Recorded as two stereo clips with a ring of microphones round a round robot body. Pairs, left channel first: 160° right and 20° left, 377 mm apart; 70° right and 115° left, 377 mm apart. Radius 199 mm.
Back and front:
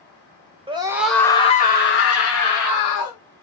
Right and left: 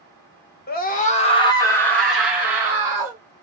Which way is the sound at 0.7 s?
35° right.